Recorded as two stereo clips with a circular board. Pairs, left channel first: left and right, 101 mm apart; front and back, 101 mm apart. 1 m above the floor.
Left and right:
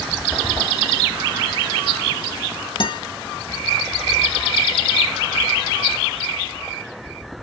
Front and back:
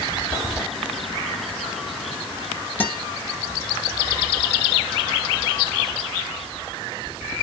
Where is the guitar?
65° left, 0.6 m.